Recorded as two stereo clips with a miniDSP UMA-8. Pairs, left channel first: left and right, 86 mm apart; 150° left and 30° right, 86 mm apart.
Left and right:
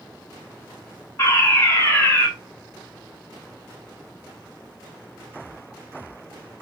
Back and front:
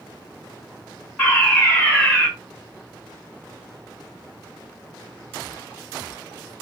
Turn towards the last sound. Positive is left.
turn(degrees=80)